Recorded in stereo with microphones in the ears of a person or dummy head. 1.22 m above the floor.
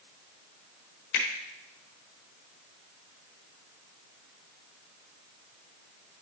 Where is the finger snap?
60° left (ahead or behind), 1.3 m.